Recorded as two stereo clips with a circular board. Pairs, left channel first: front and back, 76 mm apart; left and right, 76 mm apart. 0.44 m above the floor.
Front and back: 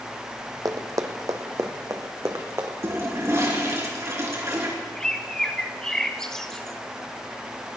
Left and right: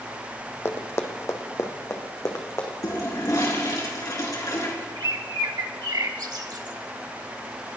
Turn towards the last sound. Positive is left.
turn(degrees=-80)